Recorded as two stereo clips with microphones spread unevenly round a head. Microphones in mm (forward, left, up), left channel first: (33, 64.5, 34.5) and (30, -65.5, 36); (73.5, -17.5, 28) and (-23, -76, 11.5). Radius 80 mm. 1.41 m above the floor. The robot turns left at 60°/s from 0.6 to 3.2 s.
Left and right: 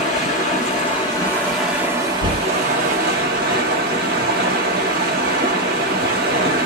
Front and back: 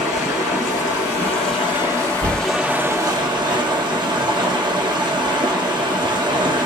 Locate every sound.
0.0 s running water: 60° left, 1.5 m; by 6.7 s 95° right, 1.5 m
2.2 s knocking: 55° right, 3 m; by 2.4 s 70° right, 3 m